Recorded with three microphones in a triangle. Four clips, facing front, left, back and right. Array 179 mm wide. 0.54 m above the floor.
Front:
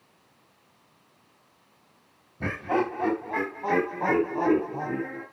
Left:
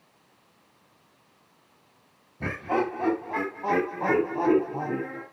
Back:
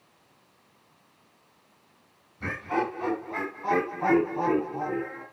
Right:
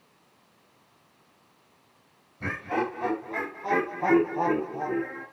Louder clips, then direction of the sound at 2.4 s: Left 2 dB, front 2 dB; 30° left.